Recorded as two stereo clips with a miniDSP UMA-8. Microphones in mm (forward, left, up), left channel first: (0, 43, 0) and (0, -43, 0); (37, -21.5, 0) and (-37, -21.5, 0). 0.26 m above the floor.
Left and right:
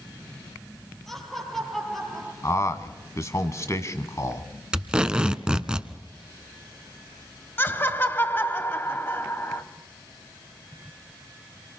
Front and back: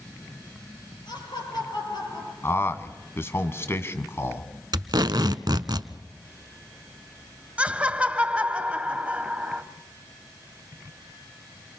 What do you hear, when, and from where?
1.1 s laughter: 5° left, 6.5 m
2.4 s a man speaking: 45° left, 1.6 m
4.7 s tape being pulled: 170° right, 0.9 m
7.6 s laughter: 125° left, 1.4 m